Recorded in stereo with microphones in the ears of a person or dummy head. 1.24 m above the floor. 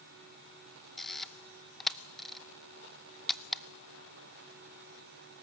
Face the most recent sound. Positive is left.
turn(degrees=0)  # may be behind; listen again after turning